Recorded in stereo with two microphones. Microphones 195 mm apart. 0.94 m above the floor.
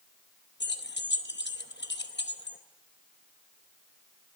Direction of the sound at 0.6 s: 60° left (ahead or behind).